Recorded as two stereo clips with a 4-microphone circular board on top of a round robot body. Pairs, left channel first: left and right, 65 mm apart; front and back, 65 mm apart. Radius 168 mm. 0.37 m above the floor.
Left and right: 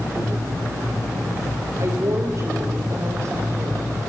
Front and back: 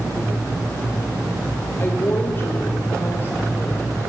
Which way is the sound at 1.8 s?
55° right.